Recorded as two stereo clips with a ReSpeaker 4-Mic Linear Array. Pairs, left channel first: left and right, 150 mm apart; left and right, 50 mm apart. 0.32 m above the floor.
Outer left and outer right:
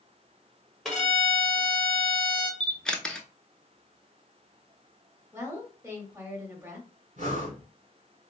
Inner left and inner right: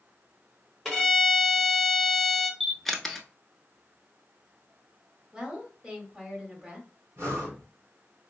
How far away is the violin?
About 1.3 m.